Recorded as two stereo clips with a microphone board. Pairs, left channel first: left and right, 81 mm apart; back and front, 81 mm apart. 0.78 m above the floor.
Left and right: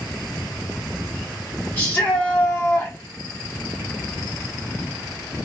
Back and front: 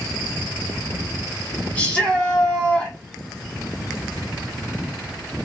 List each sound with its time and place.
1.8 s a shout: 135° left, 1.1 m